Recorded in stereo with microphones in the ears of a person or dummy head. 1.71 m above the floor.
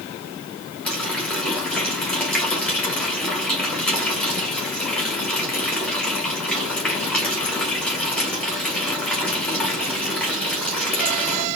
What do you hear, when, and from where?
0.8 s a running tap: centre (ahead or behind), 1.5 m